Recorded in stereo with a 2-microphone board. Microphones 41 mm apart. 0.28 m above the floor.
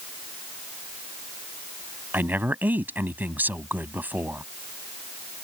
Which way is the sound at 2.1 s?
55° right (ahead or behind).